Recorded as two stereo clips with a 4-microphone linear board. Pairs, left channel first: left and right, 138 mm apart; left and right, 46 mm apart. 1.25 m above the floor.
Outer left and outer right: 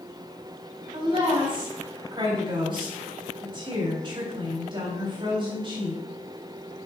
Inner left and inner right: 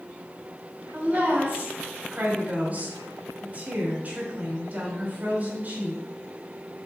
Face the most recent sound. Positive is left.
turn(degrees=-35)  # may be behind; listen again after turning